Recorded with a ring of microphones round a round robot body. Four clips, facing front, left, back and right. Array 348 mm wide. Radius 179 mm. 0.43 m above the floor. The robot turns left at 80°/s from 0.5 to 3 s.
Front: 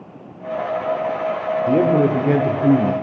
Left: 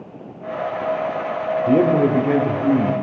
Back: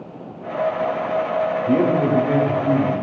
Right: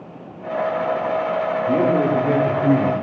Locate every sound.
1.7 s a man speaking: 55° left, 1.5 m; by 2.9 s 45° right, 1.5 m